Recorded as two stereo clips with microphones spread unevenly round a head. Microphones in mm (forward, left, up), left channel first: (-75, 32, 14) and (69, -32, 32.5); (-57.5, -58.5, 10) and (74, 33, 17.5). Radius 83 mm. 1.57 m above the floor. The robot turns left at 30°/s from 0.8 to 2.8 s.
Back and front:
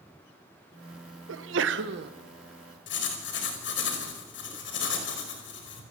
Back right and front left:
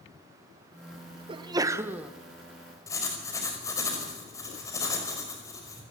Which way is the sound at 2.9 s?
140° left.